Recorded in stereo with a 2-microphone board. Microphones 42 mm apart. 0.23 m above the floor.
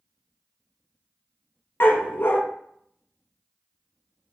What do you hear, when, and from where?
1.8 s a dog barking: 65° left (ahead or behind), 0.5 m